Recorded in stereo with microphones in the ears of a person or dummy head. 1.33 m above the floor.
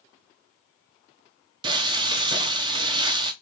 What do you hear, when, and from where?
1.6 s frying: 25° right (ahead or behind), 0.6 m